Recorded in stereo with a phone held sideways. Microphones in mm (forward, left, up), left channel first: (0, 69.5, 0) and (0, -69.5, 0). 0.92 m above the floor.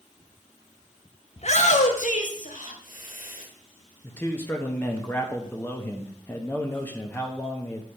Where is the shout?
55° left (ahead or behind), 1.0 m; by 3.5 s 80° left, 2.5 m.